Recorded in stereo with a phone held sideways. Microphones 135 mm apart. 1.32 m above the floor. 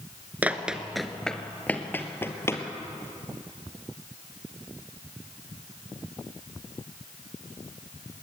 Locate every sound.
0.4 s running footsteps: 10° right (ahead or behind), 1.3 m; by 2.6 s 20° left (ahead or behind), 2.5 m